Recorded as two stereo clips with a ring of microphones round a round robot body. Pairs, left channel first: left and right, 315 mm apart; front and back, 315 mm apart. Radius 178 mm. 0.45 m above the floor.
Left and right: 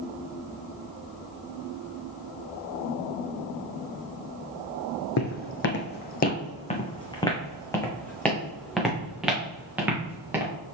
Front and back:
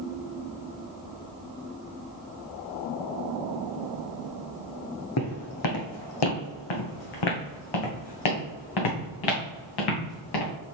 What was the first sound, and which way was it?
Footsteps, 45° left.